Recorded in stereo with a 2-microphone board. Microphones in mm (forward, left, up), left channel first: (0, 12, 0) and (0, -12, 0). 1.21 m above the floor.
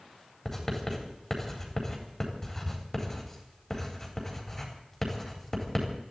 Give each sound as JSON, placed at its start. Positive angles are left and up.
{"t": 0.5, "sound": "writing", "side_deg": 25, "distance_m": 4.0}